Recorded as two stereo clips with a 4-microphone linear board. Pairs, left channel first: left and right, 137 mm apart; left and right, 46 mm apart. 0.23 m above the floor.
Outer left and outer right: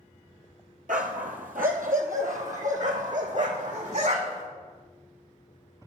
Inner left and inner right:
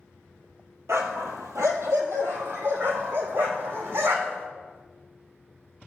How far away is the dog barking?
About 1.4 m.